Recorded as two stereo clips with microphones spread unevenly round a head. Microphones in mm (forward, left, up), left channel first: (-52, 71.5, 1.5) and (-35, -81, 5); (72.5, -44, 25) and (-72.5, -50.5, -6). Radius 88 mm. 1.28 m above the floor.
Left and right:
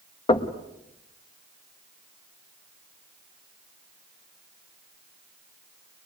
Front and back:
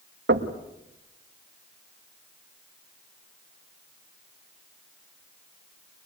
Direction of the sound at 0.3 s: 155° left.